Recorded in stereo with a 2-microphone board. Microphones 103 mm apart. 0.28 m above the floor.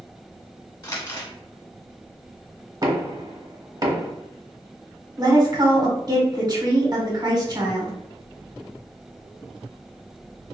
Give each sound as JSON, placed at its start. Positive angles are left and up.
{"t": 0.8, "sound": "crumpling", "side_deg": 40, "distance_m": 0.9}
{"t": 2.8, "sound": "knocking", "side_deg": -45, "distance_m": 0.9}
{"t": 5.2, "sound": "a woman speaking", "side_deg": -35, "distance_m": 1.5}